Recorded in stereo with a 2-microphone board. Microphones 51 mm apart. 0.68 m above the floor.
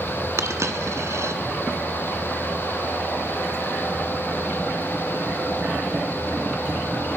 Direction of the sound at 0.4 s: 65° right (ahead or behind).